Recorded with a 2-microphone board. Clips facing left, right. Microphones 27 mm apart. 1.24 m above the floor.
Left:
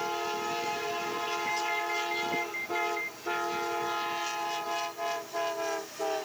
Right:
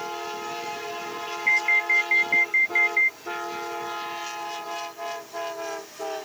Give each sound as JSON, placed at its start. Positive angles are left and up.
{"t": 1.5, "sound": "an alarm", "side_deg": -45}